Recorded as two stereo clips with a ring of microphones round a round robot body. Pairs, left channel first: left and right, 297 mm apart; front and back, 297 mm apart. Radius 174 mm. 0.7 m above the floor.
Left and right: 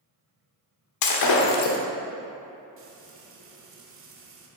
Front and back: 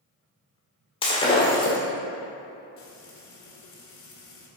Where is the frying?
45° right, 2 m.